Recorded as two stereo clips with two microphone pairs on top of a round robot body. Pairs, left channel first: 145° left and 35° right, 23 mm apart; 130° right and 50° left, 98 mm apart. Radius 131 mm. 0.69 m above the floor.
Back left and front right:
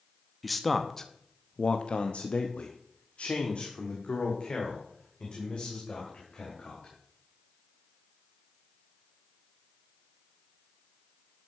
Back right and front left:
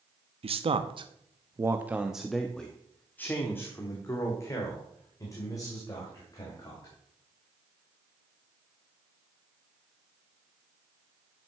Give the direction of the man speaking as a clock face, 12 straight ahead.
10 o'clock.